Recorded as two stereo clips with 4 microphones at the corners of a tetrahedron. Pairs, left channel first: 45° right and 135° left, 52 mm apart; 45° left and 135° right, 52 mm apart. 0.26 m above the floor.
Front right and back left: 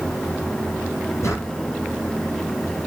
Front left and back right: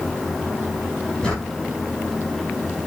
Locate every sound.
1.2 s a drawer: 25° right, 7 m